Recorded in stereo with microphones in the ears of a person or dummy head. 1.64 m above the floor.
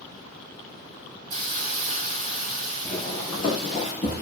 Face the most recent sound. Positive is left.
turn(degrees=40)  # may be behind; listen again after turning